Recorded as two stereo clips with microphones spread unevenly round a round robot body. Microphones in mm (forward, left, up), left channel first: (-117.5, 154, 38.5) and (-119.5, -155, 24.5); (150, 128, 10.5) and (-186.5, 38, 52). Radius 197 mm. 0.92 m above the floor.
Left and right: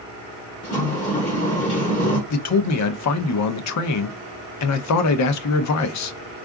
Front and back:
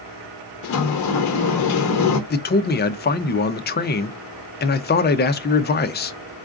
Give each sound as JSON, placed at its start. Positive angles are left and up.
{"t": 0.6, "sound": "a sliding door", "azimuth_deg": 30, "distance_m": 0.7}
{"t": 2.3, "sound": "a man speaking", "azimuth_deg": 70, "distance_m": 0.6}